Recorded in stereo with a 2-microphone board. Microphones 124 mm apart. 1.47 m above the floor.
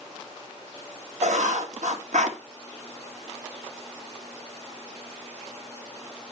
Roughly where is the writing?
Right.